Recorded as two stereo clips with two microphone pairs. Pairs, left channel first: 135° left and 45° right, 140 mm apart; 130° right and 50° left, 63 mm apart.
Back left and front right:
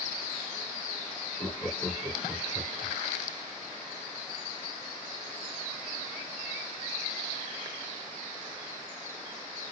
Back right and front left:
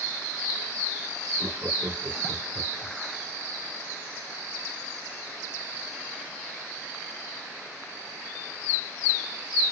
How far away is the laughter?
About 1.6 m.